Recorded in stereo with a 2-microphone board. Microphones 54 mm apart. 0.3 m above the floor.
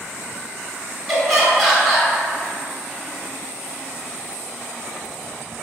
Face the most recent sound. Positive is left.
turn(degrees=0)  # may be behind; listen again after turning